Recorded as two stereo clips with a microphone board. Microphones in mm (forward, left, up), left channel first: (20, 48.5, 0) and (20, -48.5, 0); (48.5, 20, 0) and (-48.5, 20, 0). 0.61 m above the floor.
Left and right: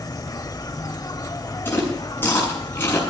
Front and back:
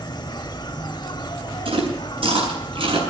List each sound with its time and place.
0.0 s an insect: 40° left, 0.7 m
1.6 s chewing: 155° left, 7.5 m